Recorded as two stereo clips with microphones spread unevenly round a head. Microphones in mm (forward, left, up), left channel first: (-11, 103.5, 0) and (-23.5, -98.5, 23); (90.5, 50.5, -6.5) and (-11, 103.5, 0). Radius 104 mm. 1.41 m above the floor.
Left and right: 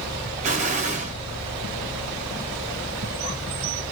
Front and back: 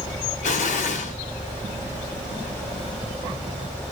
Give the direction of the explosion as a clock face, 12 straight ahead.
1 o'clock.